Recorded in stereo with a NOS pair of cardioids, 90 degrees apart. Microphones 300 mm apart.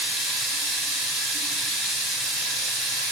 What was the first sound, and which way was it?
Running water, straight ahead.